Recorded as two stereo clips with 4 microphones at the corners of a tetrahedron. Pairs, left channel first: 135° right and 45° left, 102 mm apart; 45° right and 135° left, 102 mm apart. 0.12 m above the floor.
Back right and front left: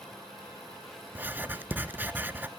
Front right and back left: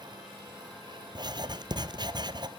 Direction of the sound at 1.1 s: 115° left.